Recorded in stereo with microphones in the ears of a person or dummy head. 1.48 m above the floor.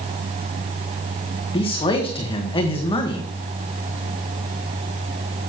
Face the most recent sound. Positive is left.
turn(degrees=30)  # may be behind; listen again after turning